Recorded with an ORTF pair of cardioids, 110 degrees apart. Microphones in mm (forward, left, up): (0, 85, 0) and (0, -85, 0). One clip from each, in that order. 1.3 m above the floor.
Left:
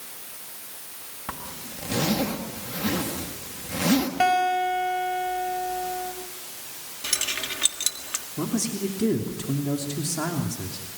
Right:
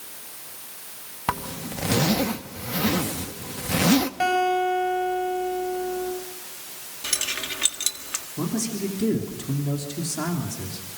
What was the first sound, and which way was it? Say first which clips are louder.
A zipper: right 9 dB; 50° right.